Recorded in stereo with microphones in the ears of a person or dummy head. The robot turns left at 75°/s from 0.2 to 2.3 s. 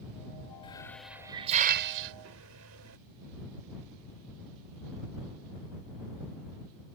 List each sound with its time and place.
0.6 s a hiss: 30° left (ahead or behind); by 3.0 s 85° right